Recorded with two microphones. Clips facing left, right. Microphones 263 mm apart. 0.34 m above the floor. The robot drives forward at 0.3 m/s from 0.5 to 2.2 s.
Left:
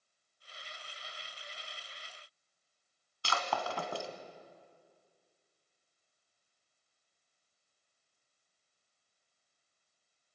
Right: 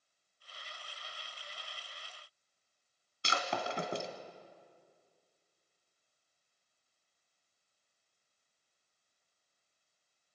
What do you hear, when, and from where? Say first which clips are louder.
3.2 s breaking glass: even; 20° right (ahead or behind), 1.9 m